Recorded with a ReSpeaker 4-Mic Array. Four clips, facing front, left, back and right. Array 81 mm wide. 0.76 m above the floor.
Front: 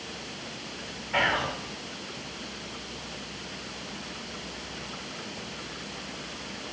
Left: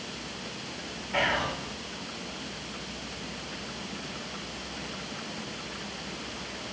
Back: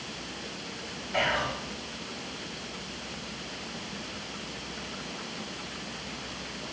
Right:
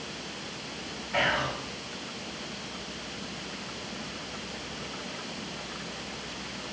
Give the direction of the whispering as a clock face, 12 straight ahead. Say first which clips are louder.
Even, front 2 dB; 12 o'clock.